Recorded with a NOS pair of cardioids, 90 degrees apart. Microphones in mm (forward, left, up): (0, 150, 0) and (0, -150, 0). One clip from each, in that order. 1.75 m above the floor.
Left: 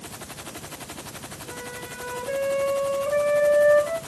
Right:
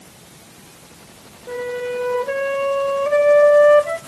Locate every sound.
1.5 s a flute: 45° right, 1.3 m